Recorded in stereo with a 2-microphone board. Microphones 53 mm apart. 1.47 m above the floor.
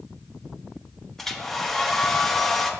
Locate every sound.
1.2 s a hair dryer: 5° left (ahead or behind), 0.9 m